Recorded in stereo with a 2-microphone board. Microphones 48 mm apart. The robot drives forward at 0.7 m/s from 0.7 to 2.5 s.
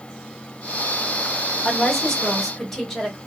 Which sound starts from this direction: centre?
A woman speaking, at 1.6 s.